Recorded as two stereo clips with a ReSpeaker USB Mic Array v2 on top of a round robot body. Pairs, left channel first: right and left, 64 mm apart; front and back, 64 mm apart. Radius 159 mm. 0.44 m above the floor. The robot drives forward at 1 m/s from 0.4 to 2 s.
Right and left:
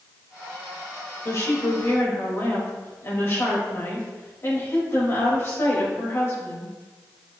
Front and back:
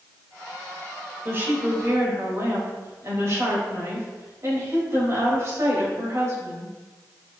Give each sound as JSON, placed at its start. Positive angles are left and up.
{"t": 1.2, "sound": "a woman speaking", "azimuth_deg": -130, "distance_m": 3.5}